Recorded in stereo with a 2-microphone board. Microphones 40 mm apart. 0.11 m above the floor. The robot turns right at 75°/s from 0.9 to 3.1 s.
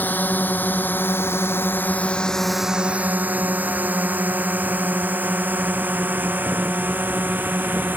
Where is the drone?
50° left (ahead or behind); by 8.0 s 50° right (ahead or behind).